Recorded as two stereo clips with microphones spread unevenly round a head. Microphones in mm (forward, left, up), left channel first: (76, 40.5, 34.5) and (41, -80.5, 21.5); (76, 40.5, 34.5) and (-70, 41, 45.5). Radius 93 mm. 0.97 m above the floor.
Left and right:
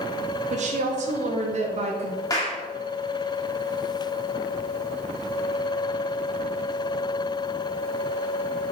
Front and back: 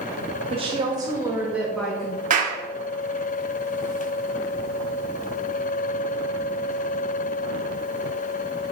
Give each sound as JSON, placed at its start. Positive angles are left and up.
{"t": 0.5, "sound": "a woman speaking", "azimuth_deg": -125, "distance_m": 2.0}
{"t": 2.3, "sound": "a clap", "azimuth_deg": 145, "distance_m": 1.9}